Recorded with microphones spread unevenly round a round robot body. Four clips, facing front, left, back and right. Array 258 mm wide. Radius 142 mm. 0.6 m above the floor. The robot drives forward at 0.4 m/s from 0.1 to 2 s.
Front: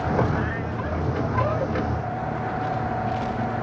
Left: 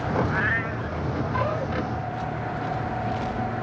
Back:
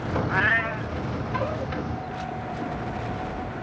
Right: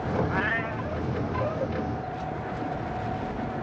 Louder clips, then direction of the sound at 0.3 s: Left 2 dB, back 2 dB; 165° right.